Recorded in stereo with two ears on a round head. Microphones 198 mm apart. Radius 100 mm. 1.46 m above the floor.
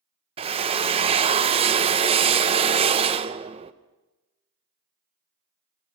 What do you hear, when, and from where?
0.4 s a drill: 25° right (ahead or behind), 0.8 m